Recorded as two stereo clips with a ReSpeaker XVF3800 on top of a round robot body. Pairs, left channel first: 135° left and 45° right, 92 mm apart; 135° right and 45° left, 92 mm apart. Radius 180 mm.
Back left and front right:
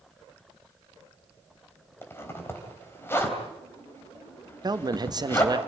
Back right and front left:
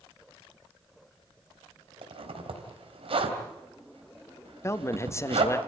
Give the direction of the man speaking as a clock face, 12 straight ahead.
3 o'clock.